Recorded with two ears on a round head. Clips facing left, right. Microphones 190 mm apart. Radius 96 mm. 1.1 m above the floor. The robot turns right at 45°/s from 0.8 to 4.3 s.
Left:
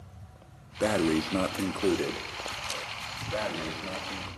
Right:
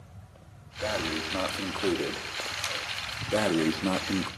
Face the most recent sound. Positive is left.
turn(degrees=-80)